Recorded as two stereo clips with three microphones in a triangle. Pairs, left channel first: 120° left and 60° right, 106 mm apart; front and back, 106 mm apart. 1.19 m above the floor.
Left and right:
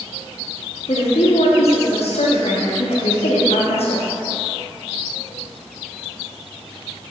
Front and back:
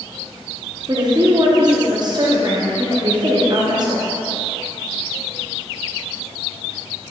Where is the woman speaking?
130° left, 0.7 m.